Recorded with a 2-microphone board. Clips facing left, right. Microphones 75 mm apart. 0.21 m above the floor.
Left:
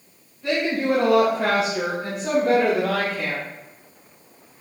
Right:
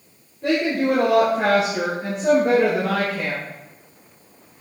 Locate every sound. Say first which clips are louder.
0.4 s a woman speaking: right 2 dB; 70° right (ahead or behind), 3 m; by 3.4 s 35° right (ahead or behind), 3 m